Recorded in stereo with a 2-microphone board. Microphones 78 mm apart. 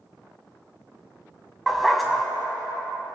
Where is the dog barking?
Centre (ahead or behind), 1.4 m.